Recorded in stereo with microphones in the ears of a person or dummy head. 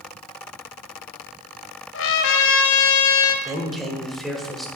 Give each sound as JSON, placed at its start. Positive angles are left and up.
{"t": 1.9, "sound": "a trumpet", "side_deg": 75, "distance_m": 0.7}
{"t": 3.5, "sound": "a man speaking", "side_deg": -5, "distance_m": 1.2}